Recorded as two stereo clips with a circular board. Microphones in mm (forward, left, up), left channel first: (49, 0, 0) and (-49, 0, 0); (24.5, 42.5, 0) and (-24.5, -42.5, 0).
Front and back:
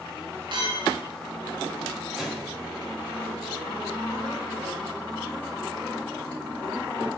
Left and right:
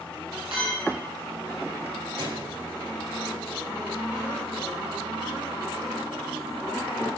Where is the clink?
145° right, 7.5 m.